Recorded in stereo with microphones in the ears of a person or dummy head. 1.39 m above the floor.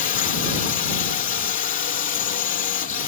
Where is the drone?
45° left (ahead or behind).